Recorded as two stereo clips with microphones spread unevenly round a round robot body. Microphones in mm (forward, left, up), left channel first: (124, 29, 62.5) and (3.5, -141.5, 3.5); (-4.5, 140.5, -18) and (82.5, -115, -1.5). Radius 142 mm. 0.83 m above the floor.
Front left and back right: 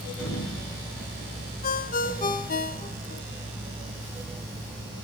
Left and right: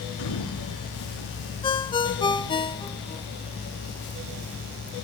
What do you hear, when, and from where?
0.2 s a sliding door: 90° left, 2 m
1.6 s a ringtone: 35° left, 0.6 m